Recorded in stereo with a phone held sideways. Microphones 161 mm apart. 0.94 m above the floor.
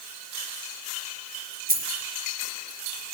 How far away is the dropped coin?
About 3.5 m.